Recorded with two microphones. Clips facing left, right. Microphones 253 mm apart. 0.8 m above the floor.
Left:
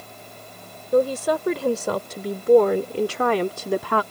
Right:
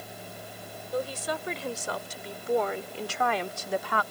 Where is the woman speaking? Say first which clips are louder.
Left 12 dB; 80° left; by 4.0 s 75° left (ahead or behind).